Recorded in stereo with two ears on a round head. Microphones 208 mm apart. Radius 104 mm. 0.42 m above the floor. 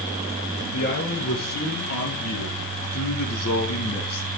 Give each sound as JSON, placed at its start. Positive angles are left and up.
{"t": 0.7, "sound": "a man speaking", "side_deg": 55, "distance_m": 6.5}